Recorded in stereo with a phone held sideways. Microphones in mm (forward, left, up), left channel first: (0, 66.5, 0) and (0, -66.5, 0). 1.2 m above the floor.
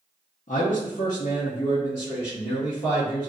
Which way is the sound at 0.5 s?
75° left (ahead or behind).